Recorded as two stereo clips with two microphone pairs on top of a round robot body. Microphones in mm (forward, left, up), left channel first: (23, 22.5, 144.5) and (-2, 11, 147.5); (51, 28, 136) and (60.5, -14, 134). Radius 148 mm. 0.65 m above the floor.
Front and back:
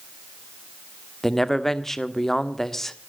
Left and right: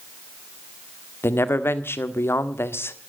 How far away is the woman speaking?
About 1.7 m.